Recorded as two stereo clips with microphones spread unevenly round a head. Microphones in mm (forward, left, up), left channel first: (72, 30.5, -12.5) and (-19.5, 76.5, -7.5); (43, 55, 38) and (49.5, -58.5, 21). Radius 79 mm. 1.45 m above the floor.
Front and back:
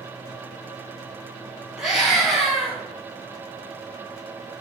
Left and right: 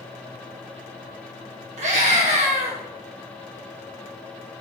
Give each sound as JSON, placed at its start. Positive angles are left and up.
{"t": 1.8, "sound": "a scream", "azimuth_deg": -120, "distance_m": 2.5}